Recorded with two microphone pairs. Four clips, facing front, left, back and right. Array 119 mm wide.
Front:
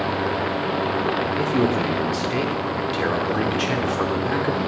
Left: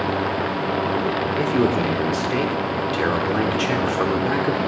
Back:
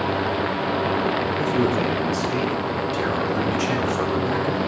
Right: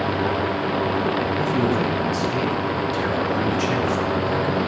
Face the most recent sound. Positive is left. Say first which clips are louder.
# left 4 dB, even
turn(degrees=60)